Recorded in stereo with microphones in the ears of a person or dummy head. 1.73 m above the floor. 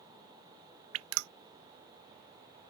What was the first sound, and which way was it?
Dripping, 85° right.